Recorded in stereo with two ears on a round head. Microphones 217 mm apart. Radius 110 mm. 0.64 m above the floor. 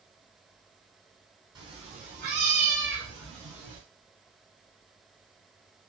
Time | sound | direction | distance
1.6 | a cat meowing | 20° right (ahead or behind) | 1.4 m